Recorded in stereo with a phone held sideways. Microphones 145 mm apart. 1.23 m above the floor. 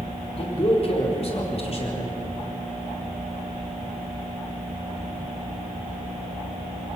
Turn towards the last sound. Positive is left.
turn(degrees=45)  # may be behind; listen again after turning